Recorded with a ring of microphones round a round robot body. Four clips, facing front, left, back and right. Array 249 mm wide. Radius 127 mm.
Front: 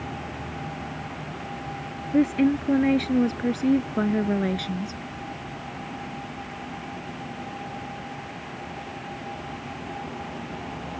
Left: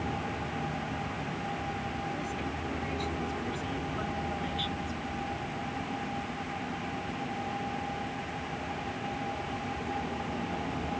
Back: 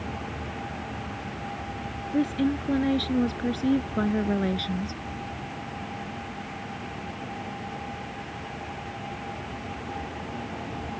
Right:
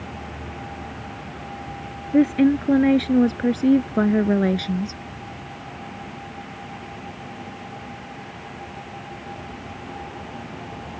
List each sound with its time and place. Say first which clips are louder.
2.1 s a woman speaking: right 19 dB, front 5 dB; 75° right; by 5.0 s 90° right